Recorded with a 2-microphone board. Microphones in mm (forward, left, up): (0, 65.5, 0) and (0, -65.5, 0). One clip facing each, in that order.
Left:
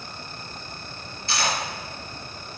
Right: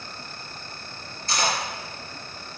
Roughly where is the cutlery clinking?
Right.